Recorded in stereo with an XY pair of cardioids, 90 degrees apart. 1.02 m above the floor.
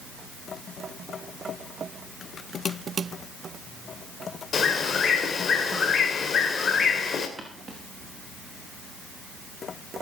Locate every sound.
4.5 s a bird: 55° left, 2.5 m
7.4 s footsteps: 20° right, 5 m